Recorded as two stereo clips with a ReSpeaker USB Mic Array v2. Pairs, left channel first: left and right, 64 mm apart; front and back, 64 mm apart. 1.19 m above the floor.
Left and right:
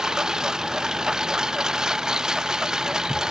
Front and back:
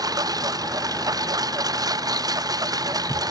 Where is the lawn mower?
170° right.